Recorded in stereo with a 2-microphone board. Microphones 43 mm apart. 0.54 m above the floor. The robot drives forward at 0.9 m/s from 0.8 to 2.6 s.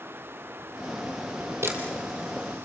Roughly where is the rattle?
I don't hear a rattle.